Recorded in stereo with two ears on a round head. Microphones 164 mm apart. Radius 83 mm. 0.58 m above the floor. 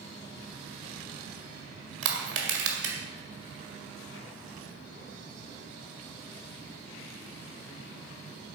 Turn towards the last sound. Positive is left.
turn(degrees=-70)  # may be behind; listen again after turning